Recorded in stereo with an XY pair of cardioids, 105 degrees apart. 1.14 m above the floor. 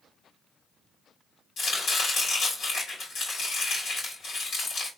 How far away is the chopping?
About 3 m.